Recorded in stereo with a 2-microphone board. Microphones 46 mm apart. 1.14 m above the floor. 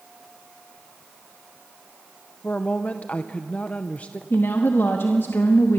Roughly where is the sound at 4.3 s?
Left.